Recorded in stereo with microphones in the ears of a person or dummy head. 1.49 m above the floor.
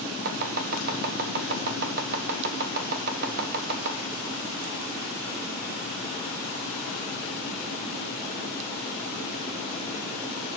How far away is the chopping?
About 1.1 m.